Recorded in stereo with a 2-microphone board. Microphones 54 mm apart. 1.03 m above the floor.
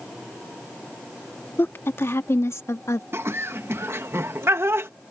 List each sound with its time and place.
1.6 s a woman speaking: 50° left (ahead or behind); by 3.0 s 70° left (ahead or behind)
3.1 s laughter: 55° right (ahead or behind)